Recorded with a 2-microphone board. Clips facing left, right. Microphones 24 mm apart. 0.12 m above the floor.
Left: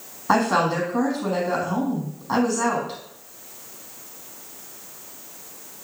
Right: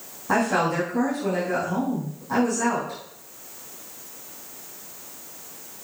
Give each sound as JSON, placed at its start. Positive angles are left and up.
{"t": 0.3, "sound": "a woman speaking", "side_deg": 35, "distance_m": 4.0}